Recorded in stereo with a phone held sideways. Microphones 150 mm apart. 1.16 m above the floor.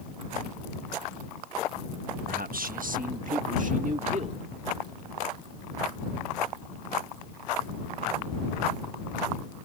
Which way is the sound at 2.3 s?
75° right (ahead or behind).